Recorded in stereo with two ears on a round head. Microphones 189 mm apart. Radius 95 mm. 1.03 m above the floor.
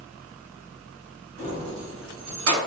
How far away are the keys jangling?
About 1.7 m.